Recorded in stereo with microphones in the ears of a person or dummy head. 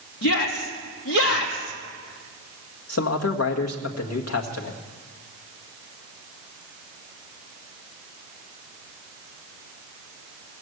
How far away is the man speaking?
About 1.9 m.